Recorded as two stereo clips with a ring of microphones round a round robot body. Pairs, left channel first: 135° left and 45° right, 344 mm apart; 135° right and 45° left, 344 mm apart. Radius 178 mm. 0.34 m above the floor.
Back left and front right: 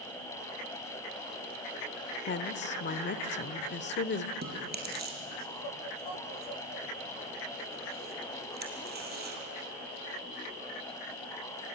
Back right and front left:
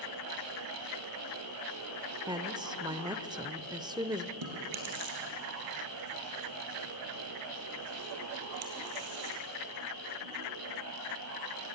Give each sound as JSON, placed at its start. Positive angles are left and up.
{"t": 2.3, "sound": "a woman speaking", "azimuth_deg": 115, "distance_m": 0.9}
{"t": 4.4, "sound": "chewing", "azimuth_deg": 20, "distance_m": 4.5}